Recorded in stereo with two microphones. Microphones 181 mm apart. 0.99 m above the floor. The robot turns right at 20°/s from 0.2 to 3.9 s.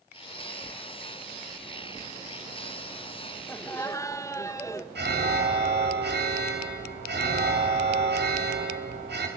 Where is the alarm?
70° right (ahead or behind), 3 m.